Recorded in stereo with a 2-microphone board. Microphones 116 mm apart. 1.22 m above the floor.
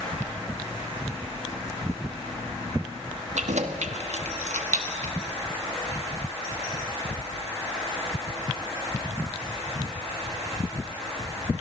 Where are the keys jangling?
85° right, 1.5 m.